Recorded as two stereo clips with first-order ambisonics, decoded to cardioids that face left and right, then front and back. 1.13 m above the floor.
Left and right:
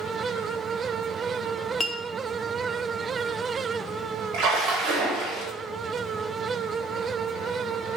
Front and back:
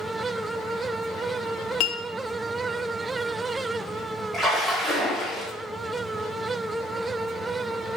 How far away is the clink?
About 0.5 m.